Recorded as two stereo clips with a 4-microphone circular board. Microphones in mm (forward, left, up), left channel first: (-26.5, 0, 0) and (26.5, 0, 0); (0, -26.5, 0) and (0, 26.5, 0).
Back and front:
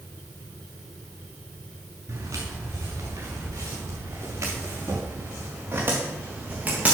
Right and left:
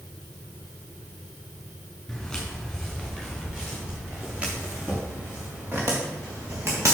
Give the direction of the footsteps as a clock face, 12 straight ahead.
12 o'clock.